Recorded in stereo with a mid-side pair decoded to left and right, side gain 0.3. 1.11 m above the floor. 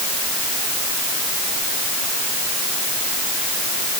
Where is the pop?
No pop in this recording.